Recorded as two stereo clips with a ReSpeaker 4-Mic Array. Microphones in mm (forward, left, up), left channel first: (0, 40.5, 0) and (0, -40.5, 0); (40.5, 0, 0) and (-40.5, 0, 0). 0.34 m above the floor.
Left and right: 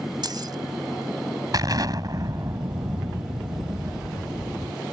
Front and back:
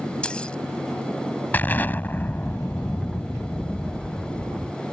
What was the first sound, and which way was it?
Keys jangling, 75° right.